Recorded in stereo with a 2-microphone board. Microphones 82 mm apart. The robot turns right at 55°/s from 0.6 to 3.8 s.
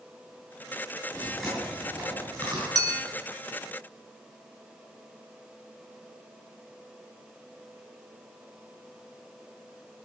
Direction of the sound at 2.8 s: 50° right (ahead or behind).